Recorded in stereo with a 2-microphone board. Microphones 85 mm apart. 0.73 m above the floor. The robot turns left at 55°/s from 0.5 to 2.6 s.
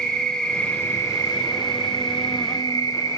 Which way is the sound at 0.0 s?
170° left.